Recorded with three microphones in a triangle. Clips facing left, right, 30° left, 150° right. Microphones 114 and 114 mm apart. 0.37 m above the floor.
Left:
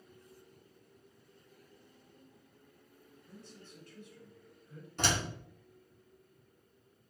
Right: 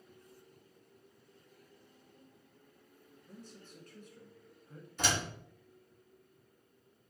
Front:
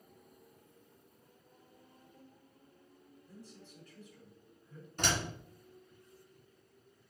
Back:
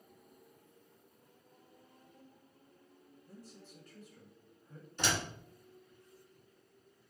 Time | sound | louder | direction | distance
3.3 | a man speaking | right 1 dB, even | 110° right | 1.3 m
5.0 | a door slam | left 1 dB, front 1 dB | 70° left | 2.5 m